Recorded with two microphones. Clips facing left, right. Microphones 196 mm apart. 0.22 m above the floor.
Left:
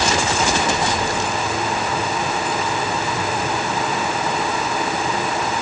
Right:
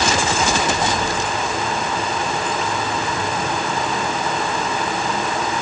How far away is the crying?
No crying in this recording.